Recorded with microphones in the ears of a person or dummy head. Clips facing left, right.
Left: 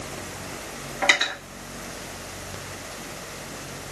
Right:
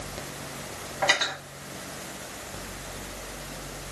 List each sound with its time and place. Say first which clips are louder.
1.0 s cutlery clinking: left 1 dB; 25° left (ahead or behind), 1.4 m